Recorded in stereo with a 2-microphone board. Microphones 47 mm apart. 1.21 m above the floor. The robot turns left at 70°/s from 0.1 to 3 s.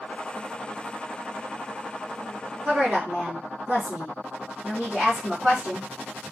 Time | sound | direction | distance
2.6 | a woman speaking | 50° right (ahead or behind) | 1.2 m